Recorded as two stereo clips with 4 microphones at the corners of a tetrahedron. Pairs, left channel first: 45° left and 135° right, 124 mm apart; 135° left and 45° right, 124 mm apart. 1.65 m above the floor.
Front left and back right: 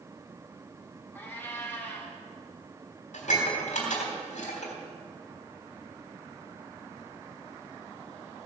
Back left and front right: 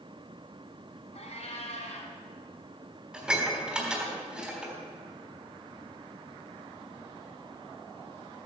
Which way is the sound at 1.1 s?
115° left.